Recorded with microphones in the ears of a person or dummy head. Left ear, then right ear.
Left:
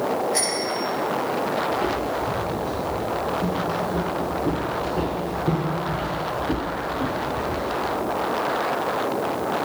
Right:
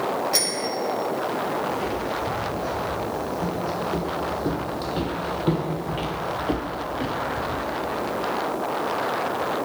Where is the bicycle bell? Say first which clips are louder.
Even; 50° right (ahead or behind), 5.5 m.